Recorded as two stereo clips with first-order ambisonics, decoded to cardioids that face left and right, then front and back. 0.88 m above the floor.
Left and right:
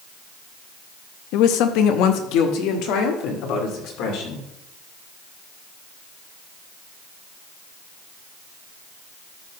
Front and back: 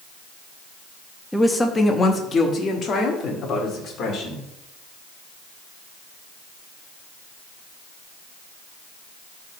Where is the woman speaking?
85° left, 0.8 m; by 4.5 s 55° left, 2.5 m.